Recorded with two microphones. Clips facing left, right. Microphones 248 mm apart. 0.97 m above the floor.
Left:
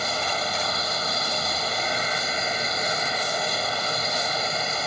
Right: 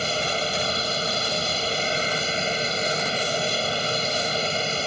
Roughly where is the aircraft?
Right.